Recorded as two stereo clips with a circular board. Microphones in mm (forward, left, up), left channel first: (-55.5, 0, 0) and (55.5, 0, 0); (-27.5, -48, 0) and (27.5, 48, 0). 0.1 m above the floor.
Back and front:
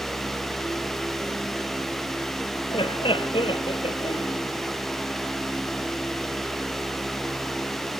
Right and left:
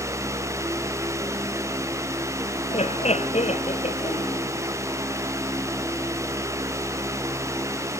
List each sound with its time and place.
2.7 s laughter: 140° right